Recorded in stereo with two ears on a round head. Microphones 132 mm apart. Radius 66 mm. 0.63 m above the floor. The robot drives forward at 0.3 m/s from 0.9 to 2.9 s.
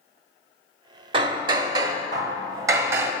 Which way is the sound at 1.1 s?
35° right (ahead or behind).